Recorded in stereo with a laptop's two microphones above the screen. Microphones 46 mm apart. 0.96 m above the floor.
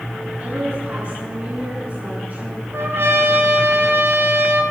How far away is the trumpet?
About 2.0 m.